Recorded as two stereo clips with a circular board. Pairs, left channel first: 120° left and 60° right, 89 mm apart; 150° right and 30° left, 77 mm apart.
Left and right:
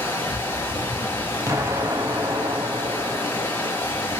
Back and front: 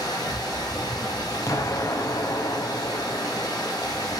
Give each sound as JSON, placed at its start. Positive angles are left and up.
{"t": 0.0, "sound": "running water", "azimuth_deg": -175, "distance_m": 1.9}
{"t": 1.5, "sound": "an explosion", "azimuth_deg": -110, "distance_m": 0.6}